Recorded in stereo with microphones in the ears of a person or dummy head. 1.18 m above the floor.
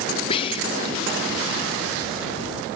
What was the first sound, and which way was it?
Whispering, 30° left (ahead or behind).